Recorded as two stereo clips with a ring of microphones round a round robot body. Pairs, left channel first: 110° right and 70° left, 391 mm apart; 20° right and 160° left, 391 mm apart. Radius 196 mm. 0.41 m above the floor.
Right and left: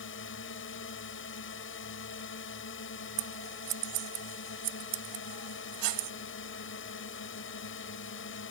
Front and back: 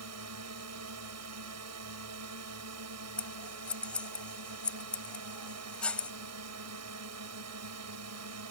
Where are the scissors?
65° left.